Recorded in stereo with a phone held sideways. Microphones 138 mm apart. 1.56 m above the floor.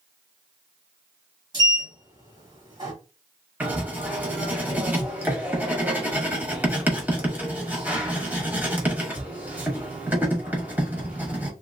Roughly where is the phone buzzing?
I don't hear a phone buzzing.